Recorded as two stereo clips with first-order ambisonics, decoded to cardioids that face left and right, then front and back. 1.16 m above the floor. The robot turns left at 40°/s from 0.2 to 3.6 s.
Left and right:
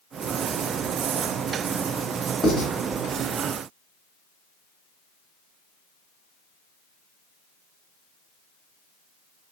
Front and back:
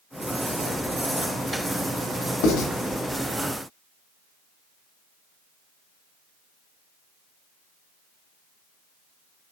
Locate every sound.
2.4 s writing: 10° left, 1.9 m; by 2.7 s straight ahead, 1.9 m